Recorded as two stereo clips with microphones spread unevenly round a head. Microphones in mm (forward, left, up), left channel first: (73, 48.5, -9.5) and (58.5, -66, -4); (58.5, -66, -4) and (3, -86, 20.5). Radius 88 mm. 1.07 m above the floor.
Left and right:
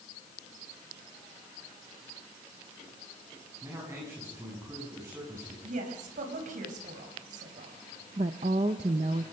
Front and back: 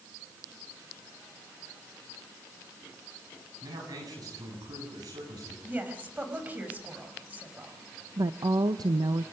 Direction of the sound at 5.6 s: 100° right.